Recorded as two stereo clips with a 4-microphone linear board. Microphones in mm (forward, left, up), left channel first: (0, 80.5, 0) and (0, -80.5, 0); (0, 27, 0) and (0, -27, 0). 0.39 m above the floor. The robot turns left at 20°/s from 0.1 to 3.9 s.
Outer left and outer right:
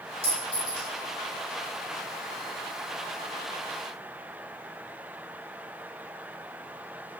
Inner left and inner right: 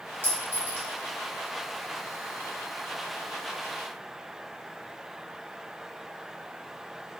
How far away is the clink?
About 1.4 m.